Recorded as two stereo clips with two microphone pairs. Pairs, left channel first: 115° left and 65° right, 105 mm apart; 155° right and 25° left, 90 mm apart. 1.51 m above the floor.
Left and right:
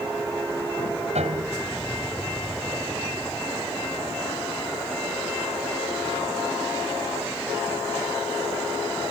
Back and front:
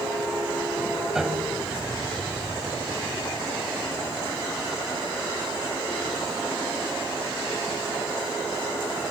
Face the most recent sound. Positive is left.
turn(degrees=-60)